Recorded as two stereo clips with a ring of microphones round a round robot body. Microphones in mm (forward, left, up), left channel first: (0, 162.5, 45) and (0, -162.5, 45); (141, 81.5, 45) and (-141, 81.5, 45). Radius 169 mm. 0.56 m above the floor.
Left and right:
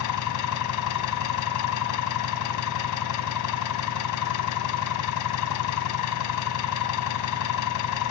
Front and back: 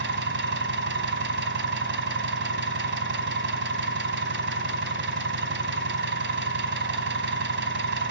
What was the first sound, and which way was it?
An engine running, 130° left.